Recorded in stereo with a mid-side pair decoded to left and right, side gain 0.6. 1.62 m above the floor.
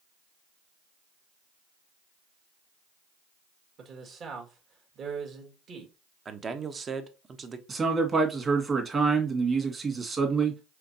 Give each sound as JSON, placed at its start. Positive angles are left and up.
{"t": 3.8, "sound": "a man speaking", "azimuth_deg": -45, "distance_m": 1.9}
{"t": 6.2, "sound": "a man speaking", "azimuth_deg": -30, "distance_m": 1.0}
{"t": 7.7, "sound": "a man speaking", "azimuth_deg": -30, "distance_m": 2.0}